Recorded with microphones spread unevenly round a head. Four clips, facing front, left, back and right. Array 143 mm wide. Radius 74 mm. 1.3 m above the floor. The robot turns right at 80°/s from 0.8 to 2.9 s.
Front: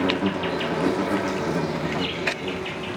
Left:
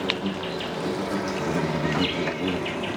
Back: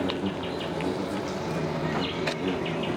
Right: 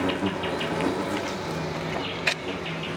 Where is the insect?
20° right, 1.4 m; by 3.0 s 150° left, 1.4 m.